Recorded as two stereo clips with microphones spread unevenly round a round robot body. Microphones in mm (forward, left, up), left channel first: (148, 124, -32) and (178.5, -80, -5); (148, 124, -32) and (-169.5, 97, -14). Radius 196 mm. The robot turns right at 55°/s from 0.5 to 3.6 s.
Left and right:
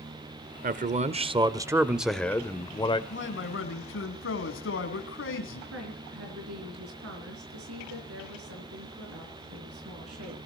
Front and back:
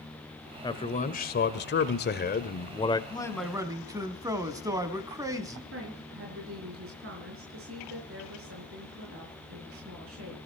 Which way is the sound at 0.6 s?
60° right.